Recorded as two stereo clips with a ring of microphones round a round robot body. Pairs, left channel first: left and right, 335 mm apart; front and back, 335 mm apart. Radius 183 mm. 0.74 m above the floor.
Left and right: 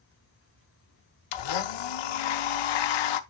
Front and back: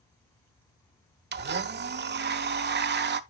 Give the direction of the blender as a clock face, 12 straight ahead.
8 o'clock.